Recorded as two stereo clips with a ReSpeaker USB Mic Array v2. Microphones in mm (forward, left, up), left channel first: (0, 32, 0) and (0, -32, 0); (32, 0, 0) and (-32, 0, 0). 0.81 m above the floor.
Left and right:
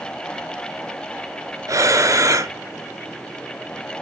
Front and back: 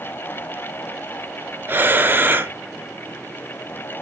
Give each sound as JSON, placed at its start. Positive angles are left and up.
{"t": 1.7, "sound": "breathing", "azimuth_deg": -120, "distance_m": 0.8}